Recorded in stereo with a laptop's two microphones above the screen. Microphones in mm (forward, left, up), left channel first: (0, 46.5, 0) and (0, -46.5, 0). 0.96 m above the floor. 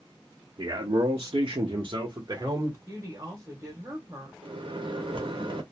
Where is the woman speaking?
30° right (ahead or behind), 1.0 m.